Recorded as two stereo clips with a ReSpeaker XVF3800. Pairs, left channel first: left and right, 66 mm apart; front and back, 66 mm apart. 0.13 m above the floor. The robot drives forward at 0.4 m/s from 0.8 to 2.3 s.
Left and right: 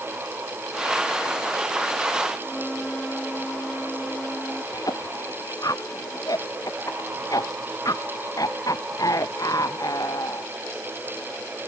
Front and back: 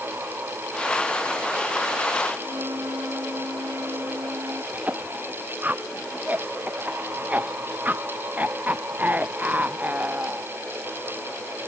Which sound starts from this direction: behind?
A flute, at 2.4 s.